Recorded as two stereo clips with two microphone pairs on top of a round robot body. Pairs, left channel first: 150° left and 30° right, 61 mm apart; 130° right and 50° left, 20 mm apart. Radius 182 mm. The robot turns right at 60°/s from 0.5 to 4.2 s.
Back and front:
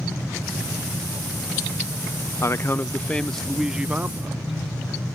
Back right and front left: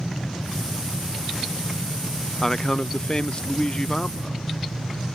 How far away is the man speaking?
About 0.6 m.